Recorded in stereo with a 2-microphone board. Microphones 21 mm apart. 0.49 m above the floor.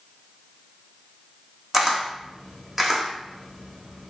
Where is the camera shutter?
15° right (ahead or behind), 0.8 m.